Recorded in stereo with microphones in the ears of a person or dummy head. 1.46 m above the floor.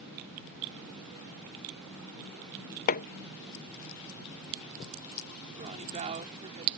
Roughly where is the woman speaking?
Right.